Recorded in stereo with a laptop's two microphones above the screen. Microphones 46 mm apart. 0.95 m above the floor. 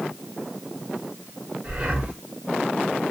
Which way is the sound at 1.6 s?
30° right (ahead or behind).